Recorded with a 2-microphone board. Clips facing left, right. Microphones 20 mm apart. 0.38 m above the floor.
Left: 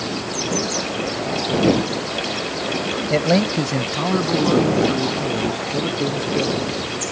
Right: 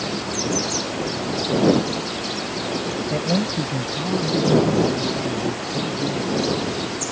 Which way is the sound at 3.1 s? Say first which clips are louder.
Left 6 dB; 50° left (ahead or behind).